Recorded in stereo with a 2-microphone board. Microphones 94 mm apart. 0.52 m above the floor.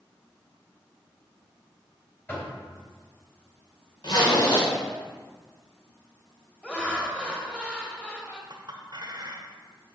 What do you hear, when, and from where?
2.3 s knocking: 20° left (ahead or behind), 2.5 m
4.0 s a zipper: 60° left (ahead or behind), 1.7 m
6.6 s laughter: 10° left (ahead or behind), 1.9 m
8.5 s a clink: 55° right (ahead or behind), 1.1 m